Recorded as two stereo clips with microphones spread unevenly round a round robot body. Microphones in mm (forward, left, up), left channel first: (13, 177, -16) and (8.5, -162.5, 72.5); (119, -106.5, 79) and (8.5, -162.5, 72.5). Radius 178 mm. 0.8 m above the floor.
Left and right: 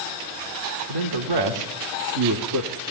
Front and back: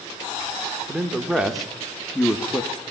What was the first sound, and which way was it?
A man speaking, 70° right.